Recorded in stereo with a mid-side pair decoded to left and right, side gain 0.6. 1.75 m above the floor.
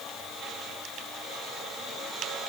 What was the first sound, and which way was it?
Only background noise.